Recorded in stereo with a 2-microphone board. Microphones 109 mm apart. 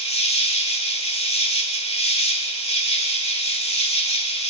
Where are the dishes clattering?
No dishes clattering in this recording.